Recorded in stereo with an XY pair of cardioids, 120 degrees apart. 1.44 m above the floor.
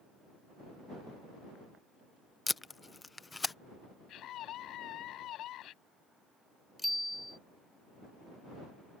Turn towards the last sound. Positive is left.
turn(degrees=5)